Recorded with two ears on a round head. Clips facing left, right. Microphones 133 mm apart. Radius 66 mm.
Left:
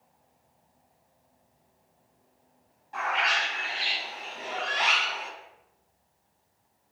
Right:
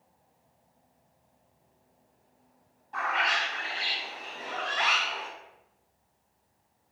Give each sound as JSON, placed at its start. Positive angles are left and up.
{"t": 2.9, "sound": "a bird", "side_deg": 10, "distance_m": 2.0}